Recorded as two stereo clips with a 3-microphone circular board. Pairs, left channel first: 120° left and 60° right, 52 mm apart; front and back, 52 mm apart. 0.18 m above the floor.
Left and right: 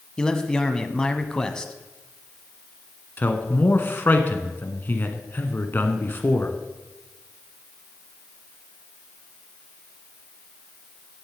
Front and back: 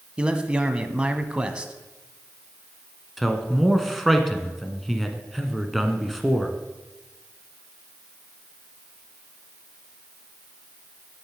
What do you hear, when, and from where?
0.2 s a man speaking: 165° left, 1.0 m
3.2 s a man speaking: 85° left, 1.6 m